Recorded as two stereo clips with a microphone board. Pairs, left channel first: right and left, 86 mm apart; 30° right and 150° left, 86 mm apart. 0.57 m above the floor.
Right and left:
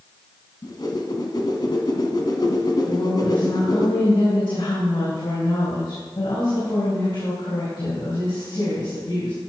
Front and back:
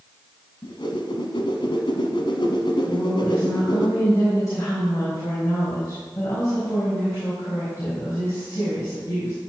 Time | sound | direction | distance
0.6 | a whoosh | 55° right | 1.4 m
2.9 | a woman speaking | 85° right | 4 m